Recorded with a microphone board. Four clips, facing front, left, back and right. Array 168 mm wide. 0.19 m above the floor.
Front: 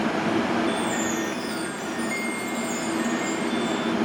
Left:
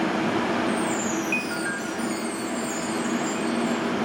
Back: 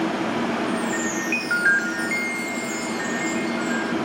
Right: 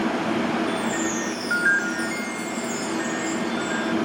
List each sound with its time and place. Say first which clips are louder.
0.7 s a chime: even, back 1 dB; 140° right